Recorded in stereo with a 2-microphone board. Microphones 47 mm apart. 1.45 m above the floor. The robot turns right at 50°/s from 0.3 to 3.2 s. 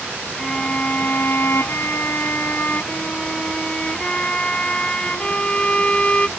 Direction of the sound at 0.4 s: 15° left.